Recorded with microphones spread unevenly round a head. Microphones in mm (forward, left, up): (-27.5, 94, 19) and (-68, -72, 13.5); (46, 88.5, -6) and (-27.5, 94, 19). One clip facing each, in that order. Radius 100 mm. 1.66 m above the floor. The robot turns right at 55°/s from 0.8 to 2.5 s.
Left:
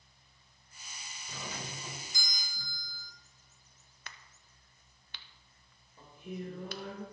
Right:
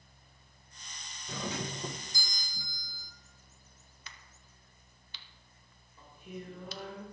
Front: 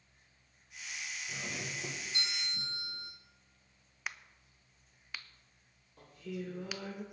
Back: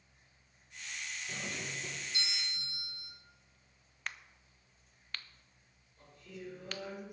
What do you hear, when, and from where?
1.3 s a doorbell: 95° right, 1.0 m; by 3.1 s 30° right, 1.0 m
4.1 s a crack: 90° left, 0.8 m
6.0 s singing: 5° left, 2.5 m